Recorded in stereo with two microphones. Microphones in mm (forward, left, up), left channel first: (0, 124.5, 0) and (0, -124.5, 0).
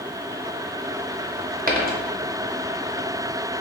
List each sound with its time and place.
1.7 s a dropped coin: 40° right (ahead or behind), 0.7 m